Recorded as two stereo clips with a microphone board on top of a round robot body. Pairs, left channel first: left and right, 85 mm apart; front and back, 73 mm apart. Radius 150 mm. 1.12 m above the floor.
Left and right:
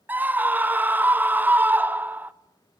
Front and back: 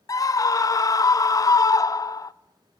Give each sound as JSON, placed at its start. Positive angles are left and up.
{"t": 0.1, "sound": "a scream", "azimuth_deg": -25, "distance_m": 0.9}